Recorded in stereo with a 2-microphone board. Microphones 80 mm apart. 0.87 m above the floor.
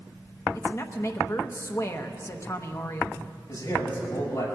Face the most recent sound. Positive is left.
turn(degrees=40)  # may be behind; listen again after turning